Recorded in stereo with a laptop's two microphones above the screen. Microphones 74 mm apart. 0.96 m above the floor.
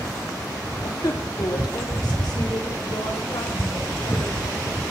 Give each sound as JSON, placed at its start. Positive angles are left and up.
{"t": 0.8, "sound": "a woman speaking", "side_deg": 60, "distance_m": 2.0}